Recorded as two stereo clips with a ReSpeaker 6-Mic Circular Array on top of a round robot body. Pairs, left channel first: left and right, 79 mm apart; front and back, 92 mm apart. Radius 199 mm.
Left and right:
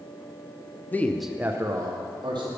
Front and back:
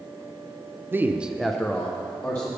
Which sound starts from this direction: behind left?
A man speaking, at 0.9 s.